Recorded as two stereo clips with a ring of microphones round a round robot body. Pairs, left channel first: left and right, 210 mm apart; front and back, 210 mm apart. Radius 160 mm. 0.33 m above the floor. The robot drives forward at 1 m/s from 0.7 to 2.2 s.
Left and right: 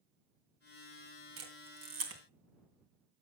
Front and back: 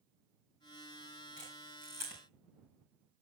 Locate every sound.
1.4 s a camera shutter: 85° right, 2.5 m; by 2.2 s 105° right, 2.5 m